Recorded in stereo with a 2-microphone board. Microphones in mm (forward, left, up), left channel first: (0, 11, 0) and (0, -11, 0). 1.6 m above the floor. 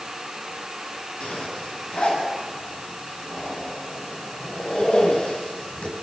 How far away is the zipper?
About 9.5 m.